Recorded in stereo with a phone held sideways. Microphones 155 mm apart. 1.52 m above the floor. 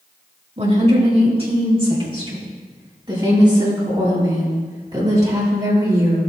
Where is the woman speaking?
45° right (ahead or behind), 3.5 m; by 6.2 s 20° right (ahead or behind), 7.5 m.